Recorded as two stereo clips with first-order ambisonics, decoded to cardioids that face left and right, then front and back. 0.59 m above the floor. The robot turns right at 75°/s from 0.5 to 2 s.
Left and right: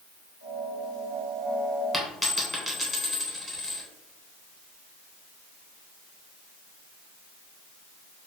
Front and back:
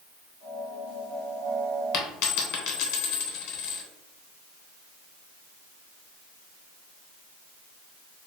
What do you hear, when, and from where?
1.9 s a dropped coin: 10° right, 0.7 m; by 3.8 s 5° right, 0.7 m